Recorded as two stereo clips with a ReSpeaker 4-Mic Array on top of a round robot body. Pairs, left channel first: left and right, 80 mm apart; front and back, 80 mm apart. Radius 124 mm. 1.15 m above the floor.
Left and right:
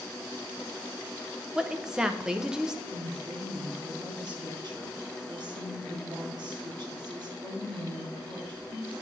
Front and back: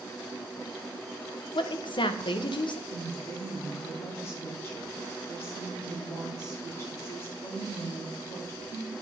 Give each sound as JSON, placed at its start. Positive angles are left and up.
{"t": 1.6, "sound": "a woman speaking", "azimuth_deg": -10, "distance_m": 0.9}
{"t": 2.9, "sound": "a woman speaking", "azimuth_deg": -55, "distance_m": 5.0}